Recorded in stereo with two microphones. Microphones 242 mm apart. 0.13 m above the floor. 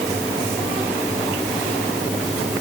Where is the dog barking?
No dog barking in this recording.